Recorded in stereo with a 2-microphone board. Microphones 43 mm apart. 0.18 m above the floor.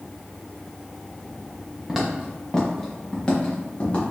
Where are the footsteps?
5° right (ahead or behind), 1.3 m; by 4.0 s 35° left (ahead or behind), 2.0 m.